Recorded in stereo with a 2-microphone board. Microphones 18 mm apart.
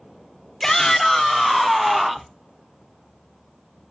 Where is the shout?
15° left (ahead or behind), 1.3 m; by 2.3 s 30° right (ahead or behind), 1.3 m.